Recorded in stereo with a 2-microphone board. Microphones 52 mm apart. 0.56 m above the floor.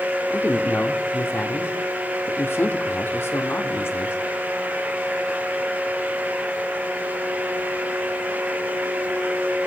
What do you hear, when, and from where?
0.3 s a man speaking: 50° left (ahead or behind), 1.0 m